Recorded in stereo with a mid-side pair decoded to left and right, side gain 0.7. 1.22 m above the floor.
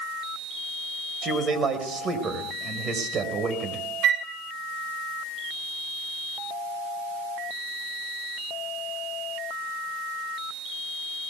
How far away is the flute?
About 3 m.